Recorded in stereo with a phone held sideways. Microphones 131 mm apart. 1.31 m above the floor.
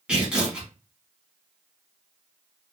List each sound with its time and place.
0.1 s tearing paper: 5° right (ahead or behind), 2 m